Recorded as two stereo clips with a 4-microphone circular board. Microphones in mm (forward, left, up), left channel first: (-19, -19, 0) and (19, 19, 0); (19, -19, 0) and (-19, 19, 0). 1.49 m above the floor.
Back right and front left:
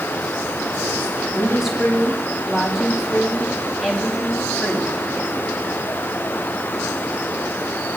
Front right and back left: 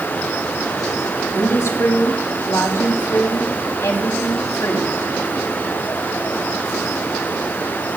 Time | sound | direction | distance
1.3 | a woman speaking | 40° right | 3.5 m